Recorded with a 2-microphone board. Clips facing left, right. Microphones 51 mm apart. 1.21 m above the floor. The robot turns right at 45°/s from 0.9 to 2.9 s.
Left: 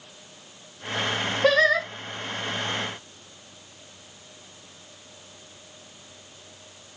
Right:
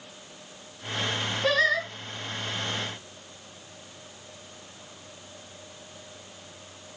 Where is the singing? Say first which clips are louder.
Left 4 dB; 55° left (ahead or behind), 1.0 m; by 1.9 s 65° left (ahead or behind), 1.0 m.